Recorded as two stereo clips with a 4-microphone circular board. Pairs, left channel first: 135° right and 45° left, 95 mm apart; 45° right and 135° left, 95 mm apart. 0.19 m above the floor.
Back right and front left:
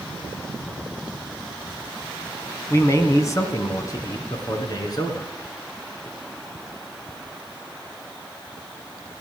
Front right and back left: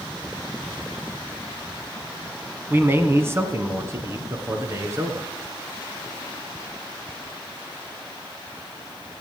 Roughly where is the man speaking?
Behind.